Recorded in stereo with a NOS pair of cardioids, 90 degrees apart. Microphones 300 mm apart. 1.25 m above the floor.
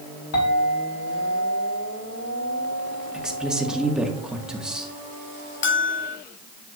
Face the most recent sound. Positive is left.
turn(degrees=40)